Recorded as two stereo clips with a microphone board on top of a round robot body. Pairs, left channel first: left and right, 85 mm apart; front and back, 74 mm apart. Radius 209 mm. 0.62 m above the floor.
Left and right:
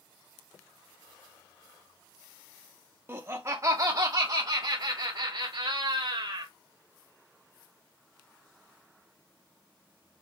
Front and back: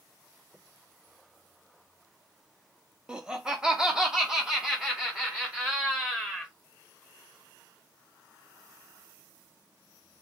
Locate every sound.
3.1 s laughter: 110° right, 1.2 m; by 6.5 s 95° right, 2.5 m